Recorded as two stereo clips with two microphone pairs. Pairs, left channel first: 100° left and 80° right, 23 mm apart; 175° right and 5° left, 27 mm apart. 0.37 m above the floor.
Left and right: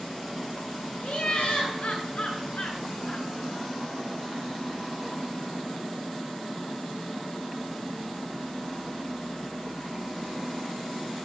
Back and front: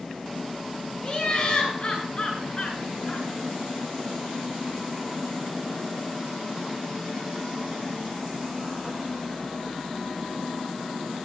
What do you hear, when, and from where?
1.0 s laughter: 130° left, 9.5 m; by 3.3 s 135° left, 8 m